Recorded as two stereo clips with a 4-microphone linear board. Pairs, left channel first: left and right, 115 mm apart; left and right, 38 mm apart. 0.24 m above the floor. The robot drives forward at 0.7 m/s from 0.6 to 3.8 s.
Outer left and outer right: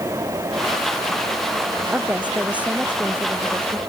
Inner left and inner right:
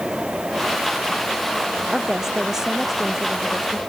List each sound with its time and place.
1.9 s a woman speaking: 10° right (ahead or behind)